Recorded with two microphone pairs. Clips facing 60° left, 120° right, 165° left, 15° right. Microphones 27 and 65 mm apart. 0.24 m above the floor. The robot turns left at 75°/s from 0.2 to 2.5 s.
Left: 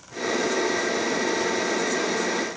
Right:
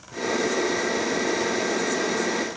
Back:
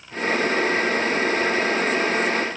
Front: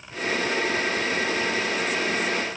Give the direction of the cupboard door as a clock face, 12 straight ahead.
I don't hear a cupboard door.